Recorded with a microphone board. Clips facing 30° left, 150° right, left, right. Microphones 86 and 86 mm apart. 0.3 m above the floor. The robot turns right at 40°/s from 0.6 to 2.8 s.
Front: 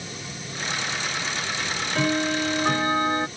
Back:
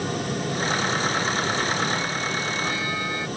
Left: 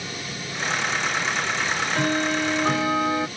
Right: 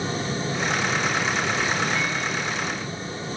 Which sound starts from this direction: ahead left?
Ticking, at 1.6 s.